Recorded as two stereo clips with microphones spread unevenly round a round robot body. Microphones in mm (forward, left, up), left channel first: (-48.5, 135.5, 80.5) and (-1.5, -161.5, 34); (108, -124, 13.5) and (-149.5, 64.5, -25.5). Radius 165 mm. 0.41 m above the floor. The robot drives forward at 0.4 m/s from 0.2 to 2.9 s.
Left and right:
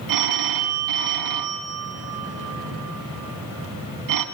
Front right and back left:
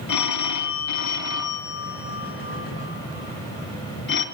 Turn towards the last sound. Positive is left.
turn(degrees=-95)